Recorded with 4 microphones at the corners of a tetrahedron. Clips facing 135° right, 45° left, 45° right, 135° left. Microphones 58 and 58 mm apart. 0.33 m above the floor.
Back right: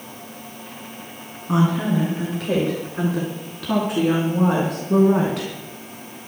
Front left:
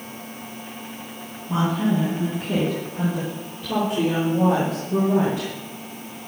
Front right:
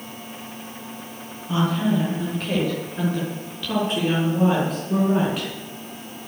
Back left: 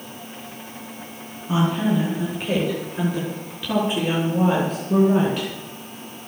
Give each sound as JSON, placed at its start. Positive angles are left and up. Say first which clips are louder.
{"t": 1.5, "sound": "a woman speaking", "louder": "back right 2 dB, back left 1 dB", "azimuth_deg": -150, "distance_m": 6.5}